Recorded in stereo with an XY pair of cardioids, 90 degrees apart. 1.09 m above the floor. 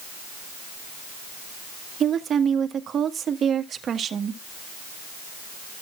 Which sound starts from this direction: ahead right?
A woman speaking, at 2.0 s.